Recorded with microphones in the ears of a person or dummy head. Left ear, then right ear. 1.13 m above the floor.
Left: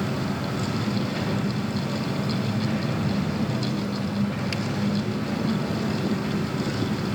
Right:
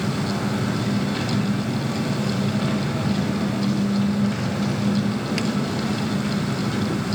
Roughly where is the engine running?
Right.